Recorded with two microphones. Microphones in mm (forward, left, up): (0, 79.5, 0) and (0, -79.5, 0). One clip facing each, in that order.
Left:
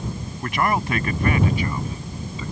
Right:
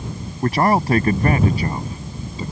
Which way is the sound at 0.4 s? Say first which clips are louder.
Right 6 dB; 40° right (ahead or behind).